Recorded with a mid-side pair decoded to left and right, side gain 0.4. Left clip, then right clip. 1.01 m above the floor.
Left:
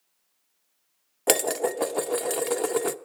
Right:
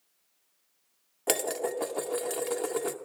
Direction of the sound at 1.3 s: 50° left.